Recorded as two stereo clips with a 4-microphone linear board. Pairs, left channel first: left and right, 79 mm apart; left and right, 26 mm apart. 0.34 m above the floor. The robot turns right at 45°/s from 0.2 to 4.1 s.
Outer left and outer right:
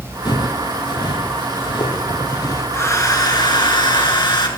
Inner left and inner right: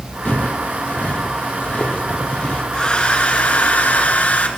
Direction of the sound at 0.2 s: 65° left (ahead or behind).